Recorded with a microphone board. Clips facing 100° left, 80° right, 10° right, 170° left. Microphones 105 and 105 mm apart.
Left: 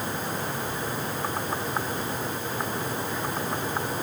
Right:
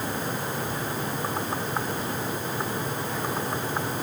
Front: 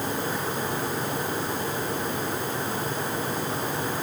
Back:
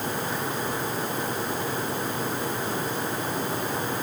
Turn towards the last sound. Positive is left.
No sound to turn to.